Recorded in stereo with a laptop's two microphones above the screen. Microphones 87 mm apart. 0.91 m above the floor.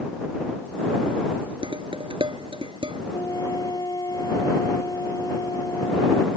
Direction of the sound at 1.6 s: 80° right.